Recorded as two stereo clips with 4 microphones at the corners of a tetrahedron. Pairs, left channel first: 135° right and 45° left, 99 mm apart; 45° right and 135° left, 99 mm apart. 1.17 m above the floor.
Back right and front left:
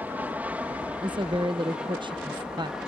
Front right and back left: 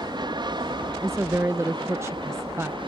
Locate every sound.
0.0 s an aircraft: 115° left; by 2.9 s 125° left
1.0 s a woman speaking: 75° left